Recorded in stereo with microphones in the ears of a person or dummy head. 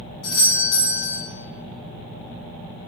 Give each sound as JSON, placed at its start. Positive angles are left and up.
{"t": 0.2, "sound": "a doorbell", "side_deg": 45, "distance_m": 1.8}